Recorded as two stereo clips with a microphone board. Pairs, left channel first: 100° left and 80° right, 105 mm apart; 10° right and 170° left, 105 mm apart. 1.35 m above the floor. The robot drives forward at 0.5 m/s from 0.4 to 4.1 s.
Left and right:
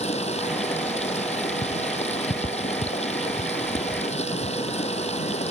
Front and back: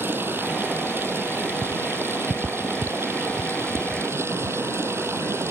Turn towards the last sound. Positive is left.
turn(degrees=100)